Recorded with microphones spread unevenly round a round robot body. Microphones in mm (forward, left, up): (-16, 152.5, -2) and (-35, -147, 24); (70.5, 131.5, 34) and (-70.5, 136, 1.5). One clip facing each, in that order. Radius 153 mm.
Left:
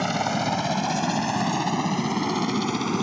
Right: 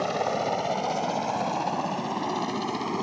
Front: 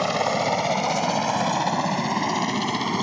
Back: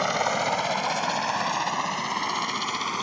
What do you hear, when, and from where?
0.0 s a helicopter: 65° left; by 3.0 s 30° left